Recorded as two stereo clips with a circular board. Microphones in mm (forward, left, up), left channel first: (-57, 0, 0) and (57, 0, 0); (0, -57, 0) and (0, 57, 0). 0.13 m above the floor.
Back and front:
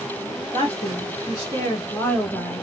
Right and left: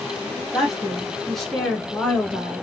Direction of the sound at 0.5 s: 175° left.